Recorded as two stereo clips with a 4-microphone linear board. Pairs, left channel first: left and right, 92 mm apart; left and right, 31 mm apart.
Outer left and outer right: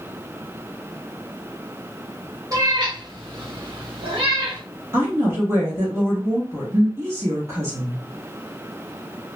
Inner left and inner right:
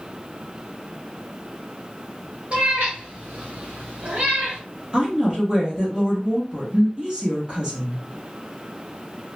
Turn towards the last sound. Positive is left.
turn(degrees=-30)  # may be behind; listen again after turning